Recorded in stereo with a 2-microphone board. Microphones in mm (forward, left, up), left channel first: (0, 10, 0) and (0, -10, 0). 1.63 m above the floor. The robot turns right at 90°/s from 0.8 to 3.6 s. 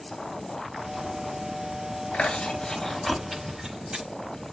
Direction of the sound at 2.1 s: 80° left.